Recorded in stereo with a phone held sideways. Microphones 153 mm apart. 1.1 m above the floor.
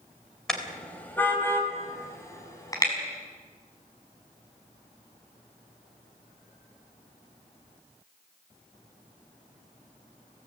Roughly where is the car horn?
Centre.